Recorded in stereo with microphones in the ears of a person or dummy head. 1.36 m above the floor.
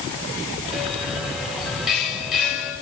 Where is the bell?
10° right (ahead or behind), 5 m.